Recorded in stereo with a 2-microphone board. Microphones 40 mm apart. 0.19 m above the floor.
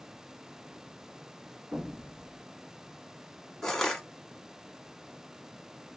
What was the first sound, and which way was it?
An explosion, 30° right (ahead or behind).